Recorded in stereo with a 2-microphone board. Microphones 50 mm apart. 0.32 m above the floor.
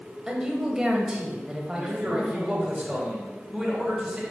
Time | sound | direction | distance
0.3 | a woman speaking | 15° right (ahead or behind) | 1.1 m
1.7 | a man speaking | 15° right (ahead or behind) | 1.8 m